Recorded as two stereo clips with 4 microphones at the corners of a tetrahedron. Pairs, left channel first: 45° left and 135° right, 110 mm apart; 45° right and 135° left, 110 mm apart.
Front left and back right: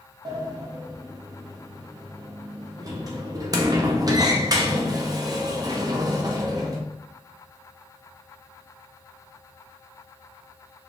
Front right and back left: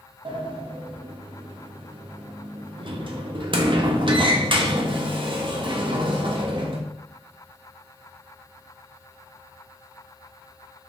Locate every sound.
0.2 s a sliding door: 175° left, 0.5 m